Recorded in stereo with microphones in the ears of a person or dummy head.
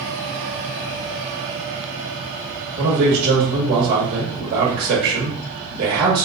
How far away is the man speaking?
About 1.5 m.